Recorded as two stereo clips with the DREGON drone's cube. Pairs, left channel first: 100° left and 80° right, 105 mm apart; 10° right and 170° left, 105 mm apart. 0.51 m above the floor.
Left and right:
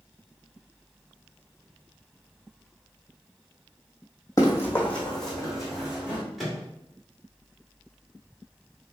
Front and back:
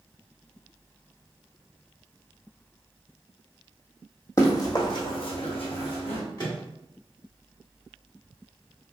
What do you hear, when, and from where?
4.4 s running footsteps: 40° left, 1.3 m; by 6.2 s straight ahead, 2.0 m
6.4 s a microwave: 10° left, 1.3 m